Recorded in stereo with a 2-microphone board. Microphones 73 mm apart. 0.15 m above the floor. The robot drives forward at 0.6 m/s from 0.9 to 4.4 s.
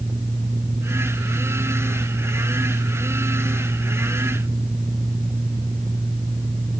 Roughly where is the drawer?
No drawer in this recording.